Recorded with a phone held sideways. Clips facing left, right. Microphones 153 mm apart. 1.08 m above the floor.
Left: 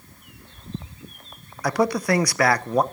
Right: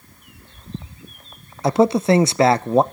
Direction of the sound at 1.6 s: 25° right (ahead or behind).